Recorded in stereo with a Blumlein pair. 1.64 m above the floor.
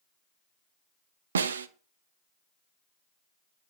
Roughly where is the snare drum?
Ahead right.